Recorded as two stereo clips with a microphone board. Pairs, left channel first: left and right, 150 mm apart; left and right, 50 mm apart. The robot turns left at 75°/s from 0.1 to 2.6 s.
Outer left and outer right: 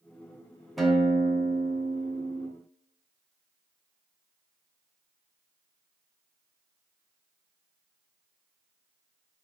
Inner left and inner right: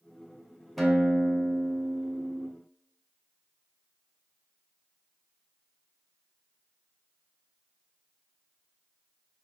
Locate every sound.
0.8 s a guitar: centre (ahead or behind), 0.5 m; by 2.5 s 15° right (ahead or behind), 0.5 m